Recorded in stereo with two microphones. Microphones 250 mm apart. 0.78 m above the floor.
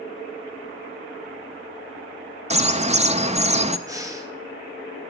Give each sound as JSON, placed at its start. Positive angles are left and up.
{"t": 2.5, "sound": "a bird", "side_deg": -25, "distance_m": 0.5}
{"t": 3.9, "sound": "breathing", "side_deg": -15, "distance_m": 1.2}